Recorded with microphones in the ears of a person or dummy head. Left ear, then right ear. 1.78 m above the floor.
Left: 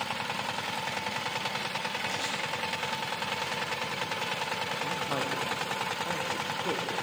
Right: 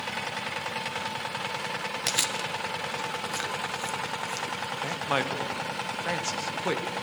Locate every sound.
2.1 s chewing: 60° right (ahead or behind), 1.1 m
4.8 s a man speaking: 60° right (ahead or behind), 1.1 m